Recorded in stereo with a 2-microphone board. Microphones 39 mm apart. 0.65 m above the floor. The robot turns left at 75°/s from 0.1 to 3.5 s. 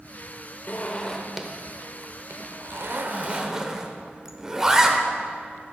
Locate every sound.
0.7 s a zipper: 45° left (ahead or behind), 0.6 m; by 5.0 s 15° right (ahead or behind), 0.6 m